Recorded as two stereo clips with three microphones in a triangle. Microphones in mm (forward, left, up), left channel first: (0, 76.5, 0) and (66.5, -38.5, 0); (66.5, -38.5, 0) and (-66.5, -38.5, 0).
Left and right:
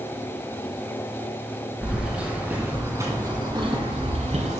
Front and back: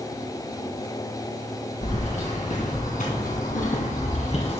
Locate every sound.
1.8 s keys jangling: 25° left, 3.5 m; by 4.6 s 40° right, 2.0 m